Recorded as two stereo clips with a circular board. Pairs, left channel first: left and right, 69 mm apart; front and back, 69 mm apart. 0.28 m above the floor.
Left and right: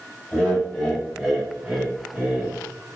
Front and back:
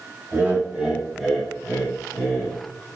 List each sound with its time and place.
0.3 s laughter: 140° left, 1.1 m; by 2.5 s 50° right, 1.3 m